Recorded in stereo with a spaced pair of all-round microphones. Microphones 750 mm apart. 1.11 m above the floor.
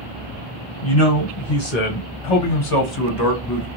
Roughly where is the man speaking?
Left.